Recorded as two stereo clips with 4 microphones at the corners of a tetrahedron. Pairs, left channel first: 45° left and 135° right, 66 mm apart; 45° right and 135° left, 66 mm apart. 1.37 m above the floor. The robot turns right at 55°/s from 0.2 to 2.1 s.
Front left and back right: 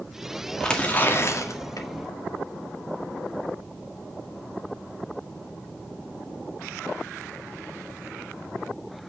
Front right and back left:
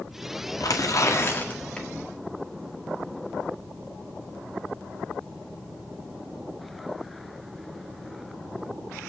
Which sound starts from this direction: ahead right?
Tearing paper, at 0.6 s.